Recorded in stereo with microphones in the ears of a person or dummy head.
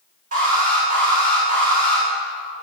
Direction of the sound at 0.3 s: 50° right (ahead or behind).